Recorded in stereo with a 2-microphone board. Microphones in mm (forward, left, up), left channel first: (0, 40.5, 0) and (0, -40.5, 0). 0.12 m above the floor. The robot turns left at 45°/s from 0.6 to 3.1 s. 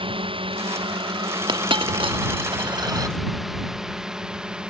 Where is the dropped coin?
65° right (ahead or behind); by 3.2 s 40° right (ahead or behind).